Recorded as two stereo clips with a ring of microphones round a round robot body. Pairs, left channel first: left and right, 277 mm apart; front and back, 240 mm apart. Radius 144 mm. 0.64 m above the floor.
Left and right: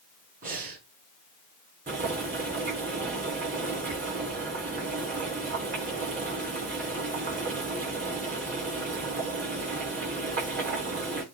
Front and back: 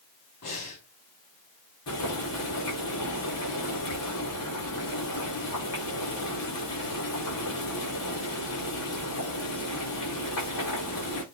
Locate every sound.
0.4 s breathing: 30° right, 4 m
1.9 s boiling: 25° right, 8.5 m